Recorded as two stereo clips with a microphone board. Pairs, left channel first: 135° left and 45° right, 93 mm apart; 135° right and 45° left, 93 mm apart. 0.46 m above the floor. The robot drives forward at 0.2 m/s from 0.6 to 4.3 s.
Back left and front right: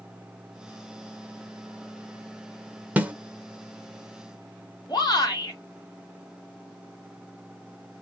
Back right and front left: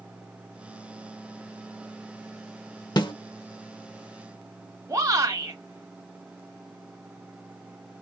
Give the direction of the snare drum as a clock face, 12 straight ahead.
4 o'clock.